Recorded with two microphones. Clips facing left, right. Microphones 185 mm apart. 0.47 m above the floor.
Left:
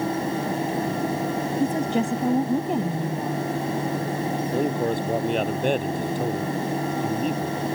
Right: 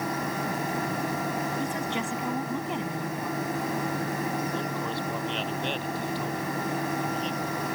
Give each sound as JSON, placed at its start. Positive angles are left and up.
{"t": 1.6, "sound": "a woman speaking", "side_deg": 40}
{"t": 4.5, "sound": "a man speaking", "side_deg": 50}